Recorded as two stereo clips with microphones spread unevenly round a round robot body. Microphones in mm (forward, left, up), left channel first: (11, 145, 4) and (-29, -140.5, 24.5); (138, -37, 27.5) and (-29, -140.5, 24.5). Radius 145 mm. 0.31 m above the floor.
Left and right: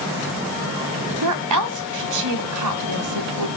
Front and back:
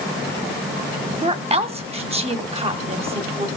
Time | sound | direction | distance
1.2 | a woman speaking | 95° right | 1.8 m